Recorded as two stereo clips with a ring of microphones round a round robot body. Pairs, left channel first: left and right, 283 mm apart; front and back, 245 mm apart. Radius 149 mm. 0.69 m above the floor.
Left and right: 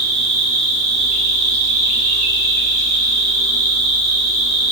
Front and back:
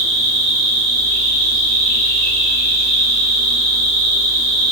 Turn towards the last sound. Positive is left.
turn(degrees=-110)